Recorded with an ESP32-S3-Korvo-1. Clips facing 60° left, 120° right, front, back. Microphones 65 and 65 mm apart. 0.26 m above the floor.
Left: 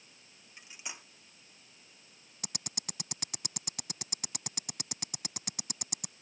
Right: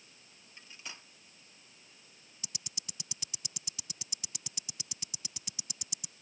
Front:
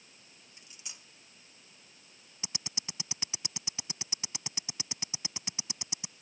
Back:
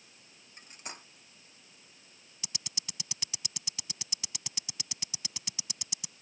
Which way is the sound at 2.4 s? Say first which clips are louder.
Left 7 dB, front 3 dB; 60° left.